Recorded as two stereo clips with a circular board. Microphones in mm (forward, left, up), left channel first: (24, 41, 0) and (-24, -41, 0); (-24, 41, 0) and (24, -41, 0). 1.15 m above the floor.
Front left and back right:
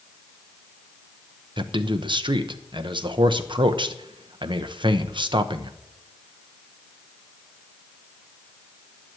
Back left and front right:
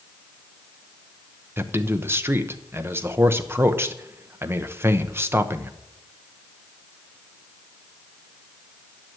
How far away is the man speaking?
About 0.9 m.